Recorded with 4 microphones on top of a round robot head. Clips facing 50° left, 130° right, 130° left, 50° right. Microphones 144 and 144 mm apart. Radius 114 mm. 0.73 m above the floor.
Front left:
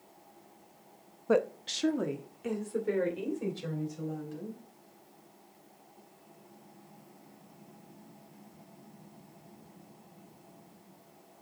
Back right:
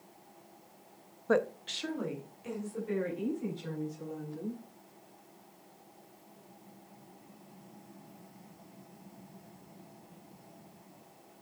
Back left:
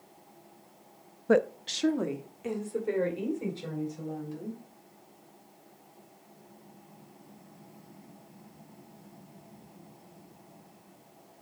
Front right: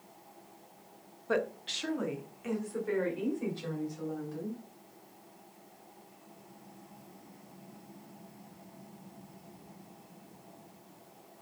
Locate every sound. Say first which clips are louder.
1.3 s a woman speaking: front left 2 dB, back left 7 dB; 125° left, 0.8 m; by 4.6 s 60° left, 5 m